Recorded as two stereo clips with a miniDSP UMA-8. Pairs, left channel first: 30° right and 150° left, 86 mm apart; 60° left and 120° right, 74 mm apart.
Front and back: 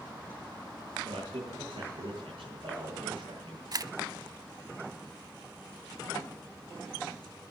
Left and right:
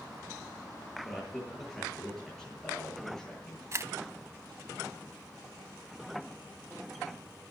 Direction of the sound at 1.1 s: 145° left.